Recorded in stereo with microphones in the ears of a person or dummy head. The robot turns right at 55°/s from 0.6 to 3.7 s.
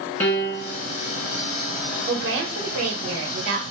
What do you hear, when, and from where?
0.2 s a piano: 10° left (ahead or behind), 1.9 m; by 0.8 s 20° left (ahead or behind), 1.9 m
2.1 s a woman speaking: 135° right, 1.1 m; by 3.6 s 50° right, 1.1 m